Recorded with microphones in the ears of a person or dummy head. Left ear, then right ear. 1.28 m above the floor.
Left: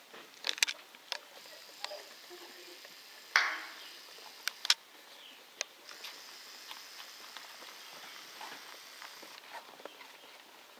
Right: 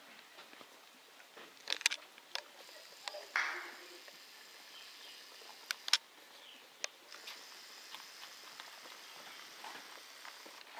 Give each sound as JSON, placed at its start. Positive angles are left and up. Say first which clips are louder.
{"t": 3.4, "sound": "a clap", "louder": "left 7 dB", "side_deg": 30, "distance_m": 0.9}